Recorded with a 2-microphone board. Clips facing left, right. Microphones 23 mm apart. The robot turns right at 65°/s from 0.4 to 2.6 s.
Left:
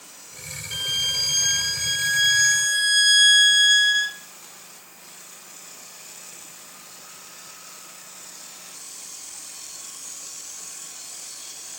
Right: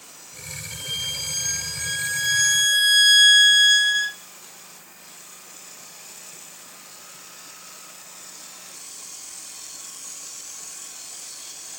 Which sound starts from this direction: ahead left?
A violin, at 0.7 s.